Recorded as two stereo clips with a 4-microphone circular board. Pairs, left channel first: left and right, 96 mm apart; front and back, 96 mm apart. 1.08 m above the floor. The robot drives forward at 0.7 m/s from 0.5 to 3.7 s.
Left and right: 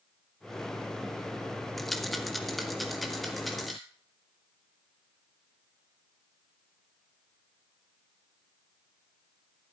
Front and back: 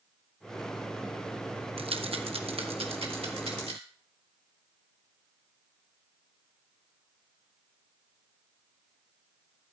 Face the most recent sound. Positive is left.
turn(degrees=180)